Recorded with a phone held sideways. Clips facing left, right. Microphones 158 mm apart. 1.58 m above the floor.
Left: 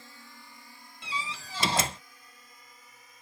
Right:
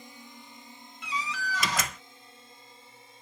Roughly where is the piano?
I don't hear a piano.